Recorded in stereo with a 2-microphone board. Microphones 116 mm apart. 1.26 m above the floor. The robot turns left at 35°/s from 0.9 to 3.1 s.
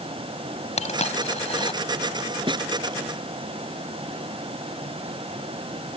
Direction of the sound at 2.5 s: 45° right (ahead or behind).